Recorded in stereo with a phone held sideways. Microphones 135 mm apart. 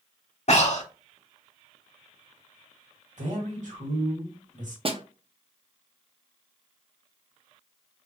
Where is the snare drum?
45° right (ahead or behind), 0.5 m.